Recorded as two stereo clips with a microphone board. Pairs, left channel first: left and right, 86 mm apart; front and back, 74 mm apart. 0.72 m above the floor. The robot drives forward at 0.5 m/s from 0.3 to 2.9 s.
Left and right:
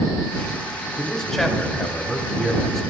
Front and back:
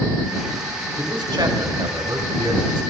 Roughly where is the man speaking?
Behind.